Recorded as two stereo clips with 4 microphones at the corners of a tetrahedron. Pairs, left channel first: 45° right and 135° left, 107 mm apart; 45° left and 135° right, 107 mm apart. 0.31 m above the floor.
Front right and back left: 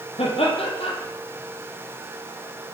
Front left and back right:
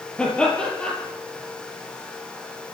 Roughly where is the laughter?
Ahead right.